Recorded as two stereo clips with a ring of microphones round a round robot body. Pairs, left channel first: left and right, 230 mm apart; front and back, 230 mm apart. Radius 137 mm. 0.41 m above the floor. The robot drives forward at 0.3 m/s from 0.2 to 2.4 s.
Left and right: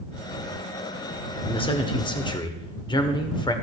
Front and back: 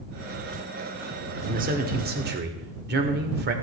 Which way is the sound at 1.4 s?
145° left.